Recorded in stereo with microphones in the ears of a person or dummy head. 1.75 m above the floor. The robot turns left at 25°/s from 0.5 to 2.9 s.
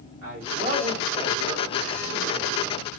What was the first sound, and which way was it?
A man speaking, 95° right.